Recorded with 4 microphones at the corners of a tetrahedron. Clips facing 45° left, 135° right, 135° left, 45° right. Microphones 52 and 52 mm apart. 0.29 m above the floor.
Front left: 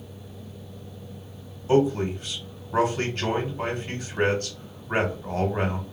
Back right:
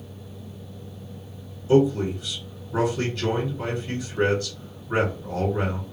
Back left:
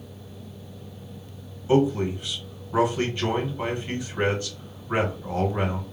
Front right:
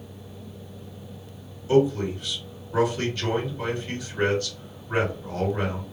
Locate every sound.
1.7 s a man speaking: 75° left, 2 m